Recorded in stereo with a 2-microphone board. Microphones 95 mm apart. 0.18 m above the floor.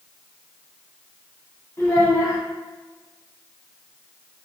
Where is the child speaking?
35° left (ahead or behind), 1.3 m.